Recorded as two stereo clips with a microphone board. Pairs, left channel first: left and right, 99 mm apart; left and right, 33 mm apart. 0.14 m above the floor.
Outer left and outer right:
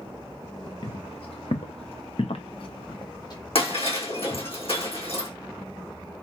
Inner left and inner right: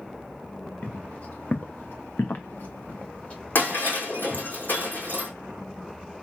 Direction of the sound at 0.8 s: 60° left (ahead or behind).